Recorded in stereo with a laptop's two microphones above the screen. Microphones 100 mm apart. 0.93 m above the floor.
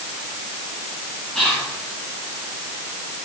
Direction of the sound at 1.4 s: 5° left (ahead or behind).